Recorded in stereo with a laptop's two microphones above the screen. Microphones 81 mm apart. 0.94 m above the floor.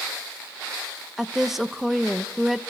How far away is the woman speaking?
About 0.8 m.